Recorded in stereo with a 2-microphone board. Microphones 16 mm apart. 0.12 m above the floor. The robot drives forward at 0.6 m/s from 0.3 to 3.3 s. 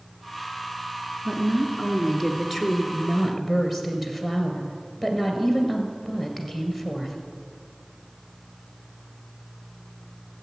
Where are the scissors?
I don't hear scissors.